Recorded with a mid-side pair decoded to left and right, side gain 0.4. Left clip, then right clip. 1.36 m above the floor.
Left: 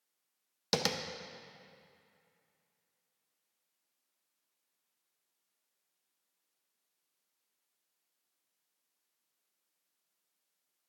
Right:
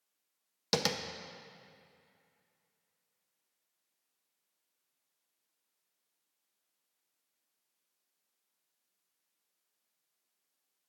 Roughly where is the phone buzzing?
I don't hear a phone buzzing.